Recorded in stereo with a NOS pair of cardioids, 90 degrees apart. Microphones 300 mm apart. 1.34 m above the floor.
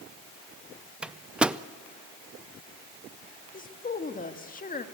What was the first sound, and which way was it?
A microwave, 5° right.